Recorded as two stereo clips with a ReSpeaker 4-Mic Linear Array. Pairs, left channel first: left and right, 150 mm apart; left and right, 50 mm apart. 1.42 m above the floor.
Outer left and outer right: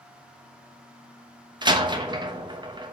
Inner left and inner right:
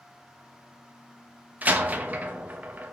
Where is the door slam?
30° right (ahead or behind), 0.9 m.